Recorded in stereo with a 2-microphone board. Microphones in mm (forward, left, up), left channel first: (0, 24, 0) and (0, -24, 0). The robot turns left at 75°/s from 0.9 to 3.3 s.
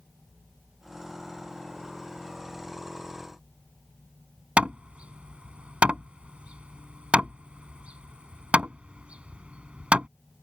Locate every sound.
4.6 s hammering: 30° right (ahead or behind)